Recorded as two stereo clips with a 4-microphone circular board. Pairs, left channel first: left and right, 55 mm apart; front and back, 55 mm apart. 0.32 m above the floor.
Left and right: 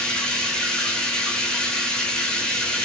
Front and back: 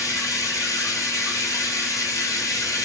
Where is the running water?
10° left, 0.8 m.